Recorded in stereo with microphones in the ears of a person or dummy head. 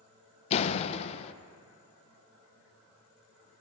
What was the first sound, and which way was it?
A door slam, 40° left (ahead or behind).